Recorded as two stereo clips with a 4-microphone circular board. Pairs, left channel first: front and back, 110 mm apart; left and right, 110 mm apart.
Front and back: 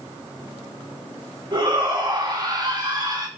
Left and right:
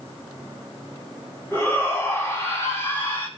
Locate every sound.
1.5 s a shout: 150° left, 1.9 m